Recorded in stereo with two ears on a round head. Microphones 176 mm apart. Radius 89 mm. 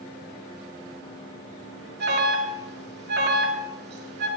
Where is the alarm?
60° right (ahead or behind), 2 m.